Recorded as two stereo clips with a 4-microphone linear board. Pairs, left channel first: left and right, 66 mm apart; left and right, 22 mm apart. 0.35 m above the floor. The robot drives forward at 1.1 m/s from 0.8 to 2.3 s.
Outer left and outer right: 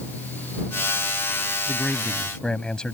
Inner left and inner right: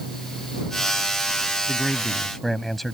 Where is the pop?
I don't hear a pop.